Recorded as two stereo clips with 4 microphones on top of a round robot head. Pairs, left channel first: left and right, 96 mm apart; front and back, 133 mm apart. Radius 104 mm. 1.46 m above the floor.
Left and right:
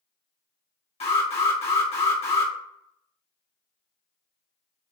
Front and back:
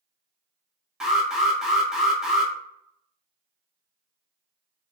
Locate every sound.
1.0 s an alarm: 95° left, 1.7 m